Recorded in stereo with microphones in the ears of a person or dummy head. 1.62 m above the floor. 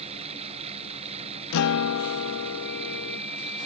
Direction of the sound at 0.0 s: 30° right (ahead or behind).